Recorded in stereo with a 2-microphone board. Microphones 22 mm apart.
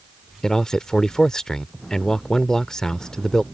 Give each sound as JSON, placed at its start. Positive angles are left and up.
{"t": 0.4, "sound": "a man speaking", "side_deg": 30}